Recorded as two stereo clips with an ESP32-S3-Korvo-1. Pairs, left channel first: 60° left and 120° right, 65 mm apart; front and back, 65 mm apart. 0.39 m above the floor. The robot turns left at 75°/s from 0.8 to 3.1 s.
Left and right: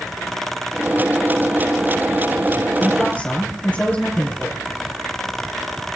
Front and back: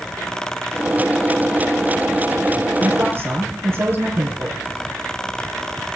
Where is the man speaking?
155° left, 5.5 m; by 4.6 s 130° left, 5.5 m.